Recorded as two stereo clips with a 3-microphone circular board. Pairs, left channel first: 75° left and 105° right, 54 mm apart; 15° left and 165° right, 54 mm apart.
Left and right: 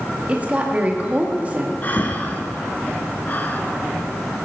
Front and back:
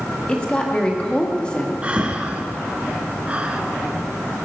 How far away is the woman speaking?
About 1.4 m.